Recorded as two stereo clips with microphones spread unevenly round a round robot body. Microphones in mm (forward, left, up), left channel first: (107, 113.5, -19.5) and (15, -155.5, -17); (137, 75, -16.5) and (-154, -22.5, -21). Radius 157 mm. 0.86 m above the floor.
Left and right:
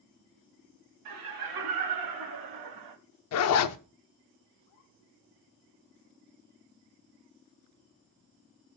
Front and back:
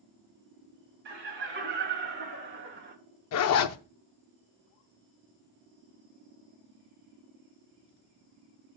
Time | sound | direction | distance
1.1 | laughter | 105° right | 3 m
3.3 | a zipper | 50° left | 0.6 m